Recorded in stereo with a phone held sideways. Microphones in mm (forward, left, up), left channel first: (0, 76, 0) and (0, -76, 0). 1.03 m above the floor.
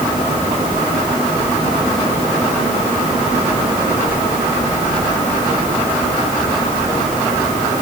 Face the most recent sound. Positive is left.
No sound to turn to.